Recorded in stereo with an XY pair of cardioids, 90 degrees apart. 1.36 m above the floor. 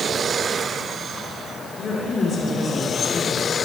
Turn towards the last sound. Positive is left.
turn(degrees=55)